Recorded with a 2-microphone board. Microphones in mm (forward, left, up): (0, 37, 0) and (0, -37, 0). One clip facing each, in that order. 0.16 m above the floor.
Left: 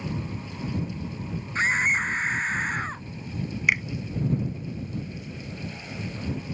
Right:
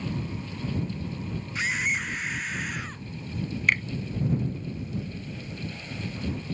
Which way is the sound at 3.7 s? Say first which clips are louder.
Left 1 dB; 10° left (ahead or behind).